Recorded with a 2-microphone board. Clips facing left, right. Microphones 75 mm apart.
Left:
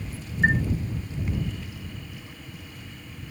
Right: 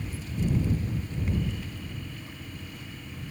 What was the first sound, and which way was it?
A chime, 80° left.